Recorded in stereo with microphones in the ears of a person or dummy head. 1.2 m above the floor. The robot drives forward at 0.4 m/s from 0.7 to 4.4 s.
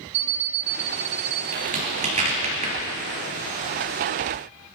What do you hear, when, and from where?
0.1 s an alarm clock: 65° right (ahead or behind), 1.0 m
1.5 s a crack: 40° right (ahead or behind), 4.5 m; by 2.7 s 35° right (ahead or behind), 5 m